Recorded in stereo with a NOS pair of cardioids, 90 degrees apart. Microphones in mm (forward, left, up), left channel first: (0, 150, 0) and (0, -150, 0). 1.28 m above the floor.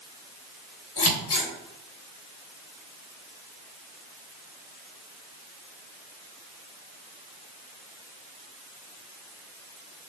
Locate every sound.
1.0 s scissors: 55° left, 1.8 m